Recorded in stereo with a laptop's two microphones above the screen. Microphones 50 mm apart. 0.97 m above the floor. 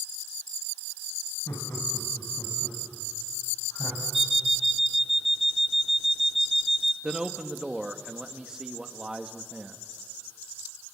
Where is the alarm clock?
5° right (ahead or behind), 1.0 m.